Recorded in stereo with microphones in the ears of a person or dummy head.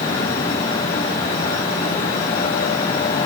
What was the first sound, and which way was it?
Only background noise.